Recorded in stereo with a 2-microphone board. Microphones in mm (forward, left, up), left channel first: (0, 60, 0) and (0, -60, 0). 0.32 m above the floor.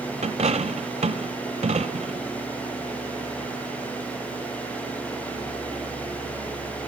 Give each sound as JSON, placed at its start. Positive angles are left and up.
{"t": 0.2, "sound": "a dropped coin", "side_deg": -75, "distance_m": 0.8}